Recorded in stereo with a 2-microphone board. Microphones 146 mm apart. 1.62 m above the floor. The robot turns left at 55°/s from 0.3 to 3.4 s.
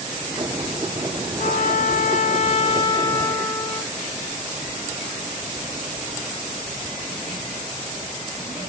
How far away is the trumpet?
About 6 m.